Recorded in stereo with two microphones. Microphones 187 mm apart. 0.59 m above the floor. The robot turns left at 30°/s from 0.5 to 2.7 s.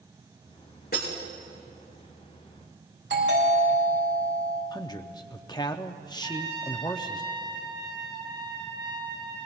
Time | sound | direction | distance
0.9 | breaking glass | 55° left (ahead or behind) | 5.5 m
3.1 | a doorbell | 80° right | 6.5 m
4.7 | a man speaking | 20° left (ahead or behind) | 0.7 m
6.2 | a trumpet | 25° right (ahead or behind) | 3.5 m